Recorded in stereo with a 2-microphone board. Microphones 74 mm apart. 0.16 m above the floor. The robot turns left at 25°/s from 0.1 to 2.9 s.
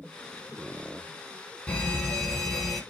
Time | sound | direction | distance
1.7 | a fire alarm | 15° left (ahead or behind) | 2.5 m